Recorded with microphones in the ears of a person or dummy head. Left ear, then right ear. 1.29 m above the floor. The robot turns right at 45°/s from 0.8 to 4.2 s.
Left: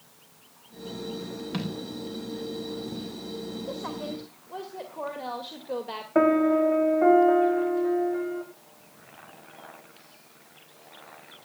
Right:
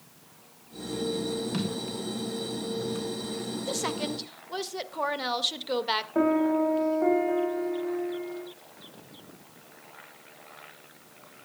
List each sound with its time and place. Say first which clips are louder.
1.5 s a thud: right 2 dB; 10° left (ahead or behind), 4 m; by 3.1 s 60° right (ahead or behind), 4 m
3.7 s a woman speaking: right 5 dB; 80° right, 1.8 m; by 6.0 s 55° right (ahead or behind), 1.8 m
6.2 s a piano: left 5 dB; 75° left (ahead or behind), 3 m